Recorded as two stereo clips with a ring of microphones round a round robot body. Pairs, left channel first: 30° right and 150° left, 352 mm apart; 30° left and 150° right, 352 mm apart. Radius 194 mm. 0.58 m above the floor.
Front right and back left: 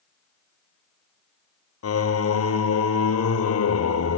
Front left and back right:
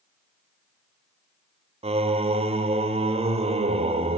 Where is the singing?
80° right, 1.5 m.